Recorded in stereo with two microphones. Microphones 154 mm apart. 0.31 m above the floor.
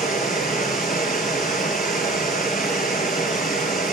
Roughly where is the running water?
Left.